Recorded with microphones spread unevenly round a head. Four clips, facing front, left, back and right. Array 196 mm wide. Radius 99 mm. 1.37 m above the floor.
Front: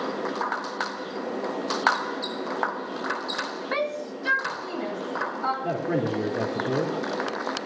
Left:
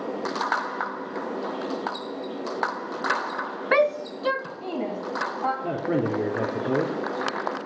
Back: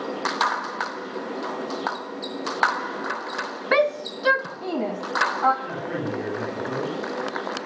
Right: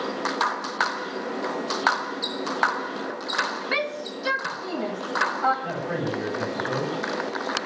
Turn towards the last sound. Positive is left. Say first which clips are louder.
# left 3 dB, front 3 dB
turn(degrees=65)